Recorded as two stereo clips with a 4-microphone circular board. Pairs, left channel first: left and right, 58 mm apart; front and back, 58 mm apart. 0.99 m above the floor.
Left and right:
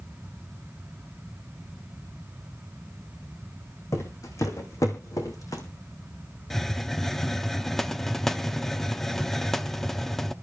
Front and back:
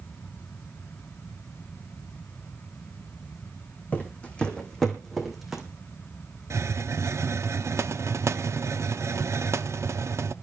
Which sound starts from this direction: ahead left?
Footsteps, at 3.9 s.